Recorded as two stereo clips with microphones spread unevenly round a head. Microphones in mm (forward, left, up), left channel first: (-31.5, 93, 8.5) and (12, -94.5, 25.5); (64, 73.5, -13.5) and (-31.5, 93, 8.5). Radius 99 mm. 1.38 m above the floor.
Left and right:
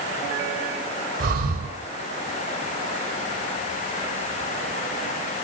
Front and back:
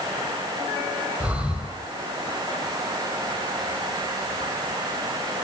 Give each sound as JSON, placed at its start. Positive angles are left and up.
{"t": 1.2, "sound": "breathing", "azimuth_deg": -115, "distance_m": 2.5}